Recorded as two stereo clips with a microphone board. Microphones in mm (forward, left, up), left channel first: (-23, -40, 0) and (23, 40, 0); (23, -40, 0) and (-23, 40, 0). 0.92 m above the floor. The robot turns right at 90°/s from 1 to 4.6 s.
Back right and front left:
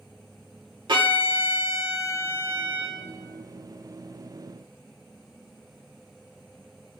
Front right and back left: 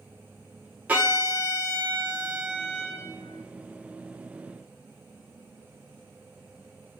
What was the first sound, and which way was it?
A violin, 50° left.